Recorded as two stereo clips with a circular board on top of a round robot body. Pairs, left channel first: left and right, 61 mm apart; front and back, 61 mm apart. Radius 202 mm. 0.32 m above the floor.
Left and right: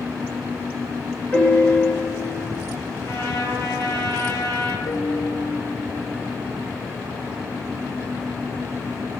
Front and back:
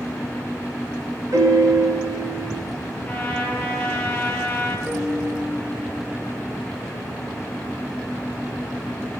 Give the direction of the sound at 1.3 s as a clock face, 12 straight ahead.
7 o'clock.